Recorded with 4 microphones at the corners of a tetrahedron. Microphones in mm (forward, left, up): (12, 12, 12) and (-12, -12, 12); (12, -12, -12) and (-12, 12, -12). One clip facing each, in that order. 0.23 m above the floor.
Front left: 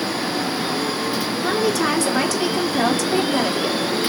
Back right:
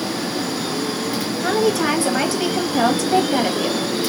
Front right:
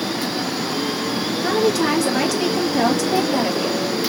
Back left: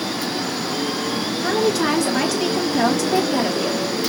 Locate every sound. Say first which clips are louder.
1.4 s a woman speaking: back right 2 dB, front right 1 dB; 135° right, 1.3 m